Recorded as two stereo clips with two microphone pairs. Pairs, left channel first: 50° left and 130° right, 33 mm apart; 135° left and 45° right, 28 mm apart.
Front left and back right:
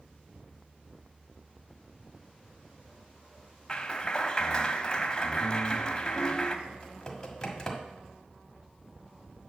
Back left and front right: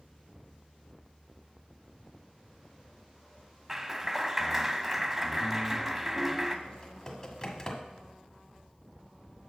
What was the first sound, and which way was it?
A clap, 15° left.